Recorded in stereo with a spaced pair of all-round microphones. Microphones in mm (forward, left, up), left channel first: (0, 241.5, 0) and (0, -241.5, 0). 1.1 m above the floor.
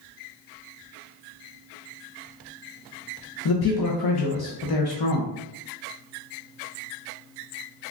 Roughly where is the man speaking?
Left.